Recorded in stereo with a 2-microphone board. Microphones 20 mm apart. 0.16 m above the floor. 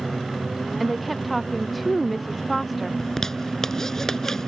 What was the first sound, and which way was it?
A woman speaking, 5° right (ahead or behind).